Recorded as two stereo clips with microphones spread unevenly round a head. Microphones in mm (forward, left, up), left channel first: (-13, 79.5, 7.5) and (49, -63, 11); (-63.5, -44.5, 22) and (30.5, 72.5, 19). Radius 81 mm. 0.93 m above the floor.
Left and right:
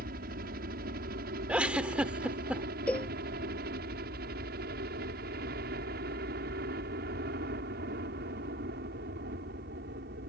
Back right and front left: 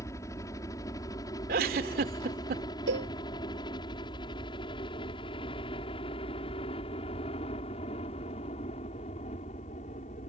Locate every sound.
0.0 s a helicopter: 60° right; by 10.3 s 80° right
1.5 s a giggle: 15° left
2.9 s a cowbell: 30° left